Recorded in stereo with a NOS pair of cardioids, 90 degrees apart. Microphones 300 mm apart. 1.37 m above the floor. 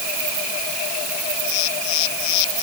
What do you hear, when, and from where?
Only background noise.